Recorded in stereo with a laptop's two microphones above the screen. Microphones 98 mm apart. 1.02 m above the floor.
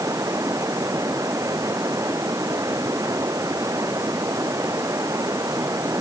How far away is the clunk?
I don't hear a clunk.